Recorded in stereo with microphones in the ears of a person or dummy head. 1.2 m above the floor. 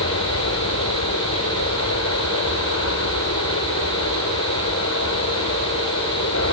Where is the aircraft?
75° left (ahead or behind).